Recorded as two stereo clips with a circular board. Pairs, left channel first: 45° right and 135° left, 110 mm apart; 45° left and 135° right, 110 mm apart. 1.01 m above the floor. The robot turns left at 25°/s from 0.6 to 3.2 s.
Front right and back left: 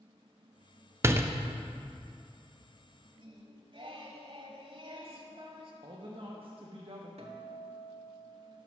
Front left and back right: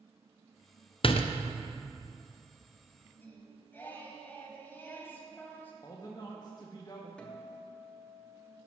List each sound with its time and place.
1.0 s a door slam: 70° left, 0.6 m; by 1.3 s 65° left, 0.6 m
3.2 s singing: 115° left, 1.3 m
5.8 s a man speaking: 100° left, 1.0 m
7.2 s a guitar: 125° left, 1.2 m